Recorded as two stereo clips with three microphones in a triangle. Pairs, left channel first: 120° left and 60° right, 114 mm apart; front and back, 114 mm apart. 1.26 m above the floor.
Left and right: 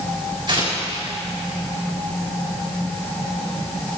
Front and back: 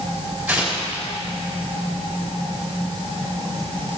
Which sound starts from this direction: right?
Tearing paper, at 0.5 s.